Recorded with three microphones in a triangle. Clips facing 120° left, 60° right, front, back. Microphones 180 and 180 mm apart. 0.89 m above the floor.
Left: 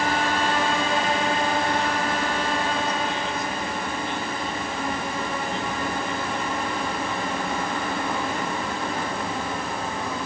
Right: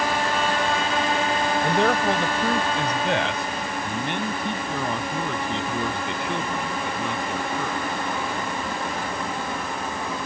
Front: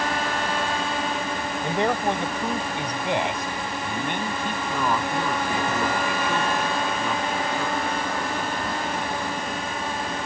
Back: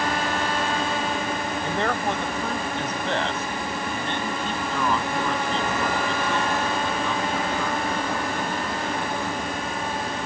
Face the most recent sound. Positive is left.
turn(degrees=-80)